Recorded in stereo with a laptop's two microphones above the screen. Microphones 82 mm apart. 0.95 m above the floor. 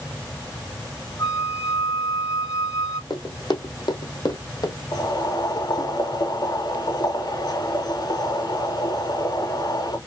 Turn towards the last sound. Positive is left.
turn(degrees=60)  # may be behind; listen again after turning